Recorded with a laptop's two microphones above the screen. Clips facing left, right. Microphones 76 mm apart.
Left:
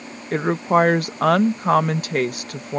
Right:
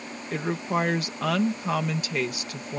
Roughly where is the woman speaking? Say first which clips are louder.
Left 9 dB; left.